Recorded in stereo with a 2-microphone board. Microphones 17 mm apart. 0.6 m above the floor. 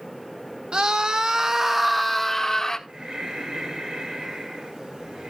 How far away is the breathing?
About 2.5 m.